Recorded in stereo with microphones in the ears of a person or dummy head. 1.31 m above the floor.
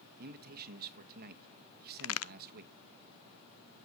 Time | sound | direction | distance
0.2 | a man speaking | 50° right (ahead or behind) | 1.2 m
2.0 | a crack | 70° left (ahead or behind) | 0.5 m